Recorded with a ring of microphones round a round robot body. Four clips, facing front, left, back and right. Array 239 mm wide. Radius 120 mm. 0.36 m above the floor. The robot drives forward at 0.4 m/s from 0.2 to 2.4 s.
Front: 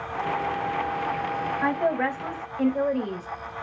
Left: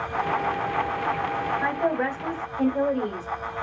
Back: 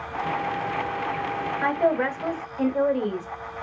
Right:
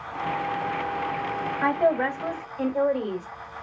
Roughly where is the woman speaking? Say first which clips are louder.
Right 6 dB, back 3 dB; behind right.